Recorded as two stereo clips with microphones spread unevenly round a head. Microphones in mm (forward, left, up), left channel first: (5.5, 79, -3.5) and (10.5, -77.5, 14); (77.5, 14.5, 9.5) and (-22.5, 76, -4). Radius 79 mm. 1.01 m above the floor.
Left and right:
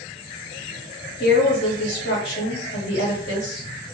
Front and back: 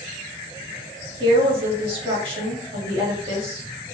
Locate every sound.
1.2 s a woman speaking: 110° left, 1.7 m